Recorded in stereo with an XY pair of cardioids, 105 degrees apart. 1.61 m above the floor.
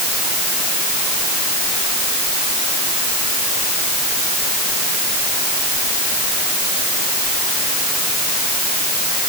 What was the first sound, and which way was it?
Only background noise.